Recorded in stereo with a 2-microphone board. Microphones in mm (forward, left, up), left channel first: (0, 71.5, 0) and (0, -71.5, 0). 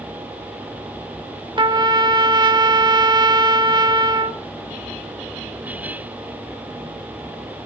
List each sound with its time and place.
1.6 s a trumpet: 35° right (ahead or behind), 0.6 m